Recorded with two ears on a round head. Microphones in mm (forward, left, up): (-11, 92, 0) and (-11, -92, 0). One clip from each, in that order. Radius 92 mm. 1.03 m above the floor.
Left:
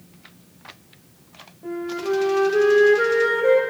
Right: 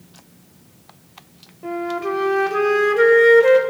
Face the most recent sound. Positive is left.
turn(degrees=-75)  # may be behind; listen again after turning